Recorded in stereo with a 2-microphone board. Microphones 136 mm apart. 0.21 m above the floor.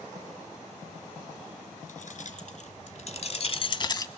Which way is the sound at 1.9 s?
70° left (ahead or behind).